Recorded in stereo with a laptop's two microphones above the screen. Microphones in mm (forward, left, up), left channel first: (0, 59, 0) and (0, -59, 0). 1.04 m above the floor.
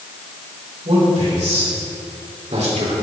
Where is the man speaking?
70° right (ahead or behind), 5 m; by 3.0 s 80° right, 3 m.